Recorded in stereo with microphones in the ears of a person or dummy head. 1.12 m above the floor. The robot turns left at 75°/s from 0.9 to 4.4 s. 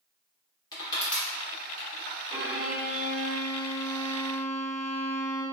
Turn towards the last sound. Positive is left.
turn(degrees=-175)